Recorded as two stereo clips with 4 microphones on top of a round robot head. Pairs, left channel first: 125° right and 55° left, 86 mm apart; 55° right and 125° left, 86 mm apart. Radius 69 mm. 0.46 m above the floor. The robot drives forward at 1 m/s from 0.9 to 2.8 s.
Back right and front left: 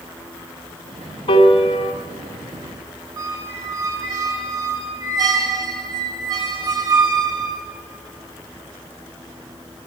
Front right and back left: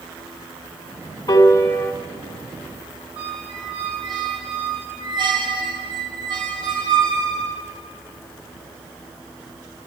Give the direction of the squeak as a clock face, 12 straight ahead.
9 o'clock.